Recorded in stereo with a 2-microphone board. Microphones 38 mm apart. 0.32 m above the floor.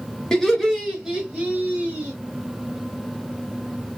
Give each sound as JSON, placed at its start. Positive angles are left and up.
{"t": 0.3, "sound": "laughter", "side_deg": 15, "distance_m": 0.9}